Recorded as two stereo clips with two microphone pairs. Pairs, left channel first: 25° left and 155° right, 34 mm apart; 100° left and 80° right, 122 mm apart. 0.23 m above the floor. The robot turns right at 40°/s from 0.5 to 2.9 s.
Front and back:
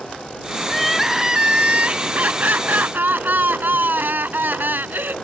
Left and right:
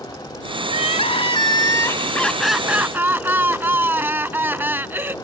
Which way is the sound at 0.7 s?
120° left.